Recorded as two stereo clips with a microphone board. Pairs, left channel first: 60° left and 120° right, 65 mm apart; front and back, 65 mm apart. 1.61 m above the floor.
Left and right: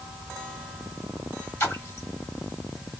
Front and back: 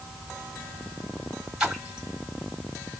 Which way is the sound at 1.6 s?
100° left.